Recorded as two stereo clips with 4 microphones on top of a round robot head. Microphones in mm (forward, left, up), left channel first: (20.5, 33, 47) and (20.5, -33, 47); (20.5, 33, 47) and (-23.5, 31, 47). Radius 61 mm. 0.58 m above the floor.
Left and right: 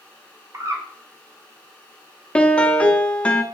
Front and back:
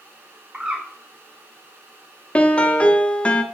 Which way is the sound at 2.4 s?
35° left.